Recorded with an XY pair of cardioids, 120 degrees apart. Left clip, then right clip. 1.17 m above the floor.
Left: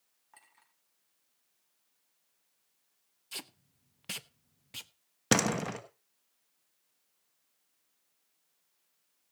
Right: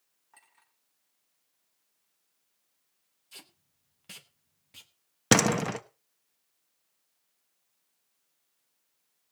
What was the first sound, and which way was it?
A clink, 10° left.